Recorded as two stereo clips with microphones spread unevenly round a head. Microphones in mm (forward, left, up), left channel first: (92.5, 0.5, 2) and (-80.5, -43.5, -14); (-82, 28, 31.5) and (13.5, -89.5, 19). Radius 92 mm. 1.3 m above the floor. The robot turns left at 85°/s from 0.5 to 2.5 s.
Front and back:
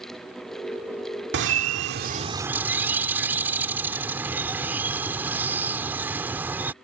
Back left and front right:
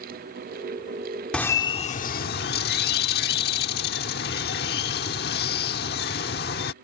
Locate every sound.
1.3 s a bird: 150° right; by 6.7 s 110° left